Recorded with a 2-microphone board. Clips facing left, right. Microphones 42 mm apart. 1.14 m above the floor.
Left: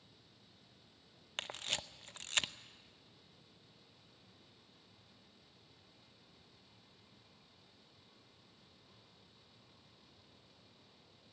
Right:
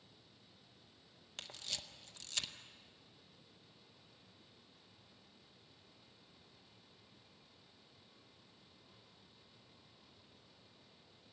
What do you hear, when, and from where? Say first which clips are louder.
1.4 s a camera shutter: left 6 dB; 45° left (ahead or behind), 0.6 m